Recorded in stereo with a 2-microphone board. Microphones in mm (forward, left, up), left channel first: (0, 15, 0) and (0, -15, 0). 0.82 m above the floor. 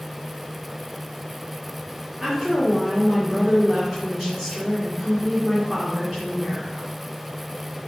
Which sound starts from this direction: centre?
A woman speaking, at 2.2 s.